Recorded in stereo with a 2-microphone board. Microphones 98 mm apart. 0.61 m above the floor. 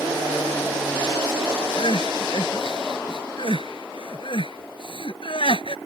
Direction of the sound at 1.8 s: 60° left (ahead or behind).